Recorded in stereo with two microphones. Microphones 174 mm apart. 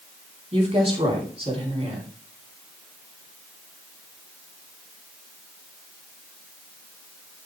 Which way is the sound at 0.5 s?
35° right (ahead or behind).